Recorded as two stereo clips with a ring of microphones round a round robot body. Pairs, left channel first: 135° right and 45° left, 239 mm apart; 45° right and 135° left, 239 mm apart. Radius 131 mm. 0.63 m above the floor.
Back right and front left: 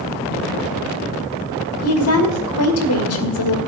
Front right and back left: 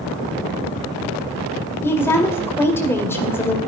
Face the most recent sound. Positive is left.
turn(degrees=-125)